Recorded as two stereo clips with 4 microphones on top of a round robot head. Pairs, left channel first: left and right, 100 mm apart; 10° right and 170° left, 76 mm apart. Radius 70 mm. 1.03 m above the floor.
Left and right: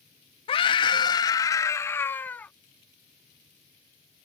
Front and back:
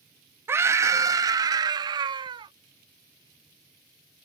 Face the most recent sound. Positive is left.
turn(degrees=165)